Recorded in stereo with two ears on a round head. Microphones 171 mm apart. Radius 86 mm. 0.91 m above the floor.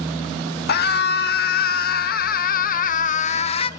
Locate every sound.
0.7 s a scream: 55° left (ahead or behind), 2 m; by 3.7 s 30° left (ahead or behind), 0.9 m